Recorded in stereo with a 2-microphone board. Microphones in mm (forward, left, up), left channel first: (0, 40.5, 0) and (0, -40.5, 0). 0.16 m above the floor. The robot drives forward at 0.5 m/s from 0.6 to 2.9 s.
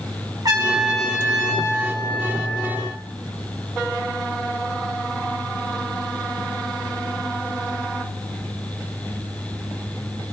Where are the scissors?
I don't hear scissors.